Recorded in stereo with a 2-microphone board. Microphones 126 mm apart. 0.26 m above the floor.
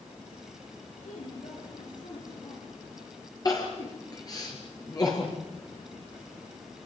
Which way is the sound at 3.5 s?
30° left (ahead or behind).